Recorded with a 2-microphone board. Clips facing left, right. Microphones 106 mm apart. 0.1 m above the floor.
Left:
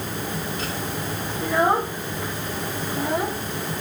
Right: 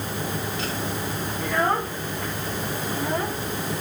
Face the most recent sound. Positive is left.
turn(degrees=10)  # may be behind; listen again after turning